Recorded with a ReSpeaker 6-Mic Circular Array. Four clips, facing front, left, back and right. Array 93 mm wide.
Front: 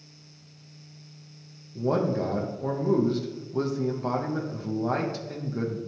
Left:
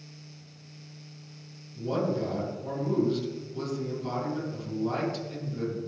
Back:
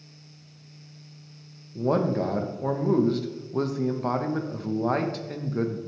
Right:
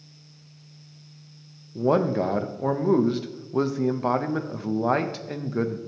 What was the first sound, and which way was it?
A man speaking, 105° right.